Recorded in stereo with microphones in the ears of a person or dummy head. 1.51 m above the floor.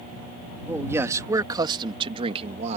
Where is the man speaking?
10° right (ahead or behind); by 2.8 s 40° right (ahead or behind).